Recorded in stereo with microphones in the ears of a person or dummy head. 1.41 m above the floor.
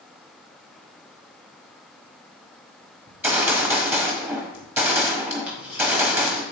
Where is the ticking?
5° right (ahead or behind), 3.5 m.